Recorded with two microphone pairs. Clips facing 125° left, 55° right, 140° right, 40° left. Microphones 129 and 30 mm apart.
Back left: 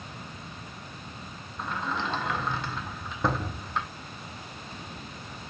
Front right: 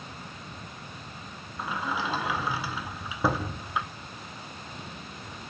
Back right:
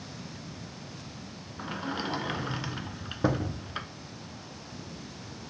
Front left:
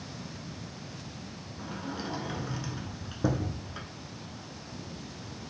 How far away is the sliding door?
About 0.6 m.